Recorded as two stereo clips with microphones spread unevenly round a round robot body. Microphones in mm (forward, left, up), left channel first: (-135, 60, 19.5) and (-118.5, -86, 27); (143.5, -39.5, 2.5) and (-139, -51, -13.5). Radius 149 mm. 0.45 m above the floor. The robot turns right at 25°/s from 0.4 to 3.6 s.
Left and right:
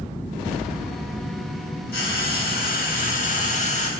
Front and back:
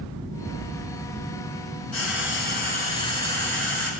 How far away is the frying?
About 6.5 m.